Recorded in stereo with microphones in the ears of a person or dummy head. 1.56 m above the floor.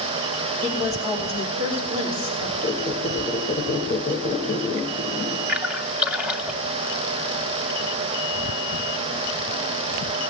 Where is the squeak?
10° left (ahead or behind), 1.0 m.